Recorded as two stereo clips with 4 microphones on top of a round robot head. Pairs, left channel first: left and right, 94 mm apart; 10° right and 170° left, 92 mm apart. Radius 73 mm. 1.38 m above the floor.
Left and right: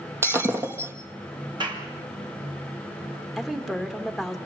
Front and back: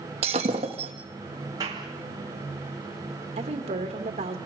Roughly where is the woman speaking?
Behind.